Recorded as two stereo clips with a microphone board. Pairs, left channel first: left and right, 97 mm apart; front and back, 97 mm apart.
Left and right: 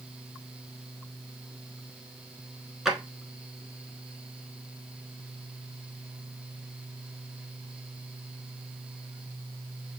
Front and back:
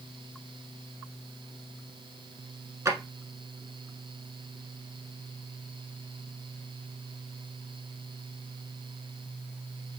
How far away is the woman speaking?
No woman speaking in this recording.